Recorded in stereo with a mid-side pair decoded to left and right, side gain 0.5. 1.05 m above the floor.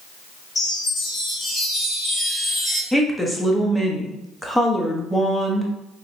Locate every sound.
0.6 s a chime: 30° left, 2 m
2.9 s a woman speaking: 10° left, 1.1 m